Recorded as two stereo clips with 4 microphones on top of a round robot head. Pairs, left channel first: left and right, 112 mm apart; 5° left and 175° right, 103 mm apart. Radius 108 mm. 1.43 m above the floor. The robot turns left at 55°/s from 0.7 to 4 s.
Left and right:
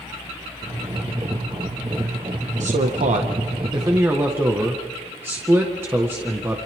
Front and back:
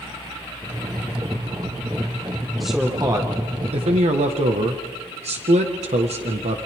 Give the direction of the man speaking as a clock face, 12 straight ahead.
3 o'clock.